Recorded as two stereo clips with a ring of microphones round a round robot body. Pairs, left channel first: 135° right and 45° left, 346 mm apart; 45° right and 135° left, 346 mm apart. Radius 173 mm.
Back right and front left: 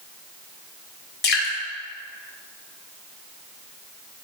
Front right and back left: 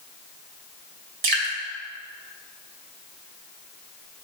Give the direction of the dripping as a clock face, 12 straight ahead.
7 o'clock.